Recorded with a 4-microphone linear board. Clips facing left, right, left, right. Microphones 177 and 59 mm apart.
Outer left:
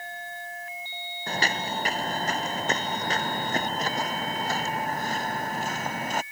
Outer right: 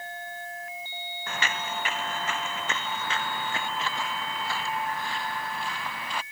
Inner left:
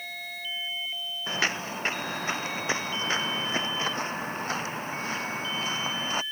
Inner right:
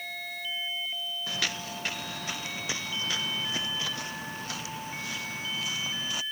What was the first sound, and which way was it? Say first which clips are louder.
Footsteps: outer left 4 dB, inner left 7 dB; 35° left (ahead or behind).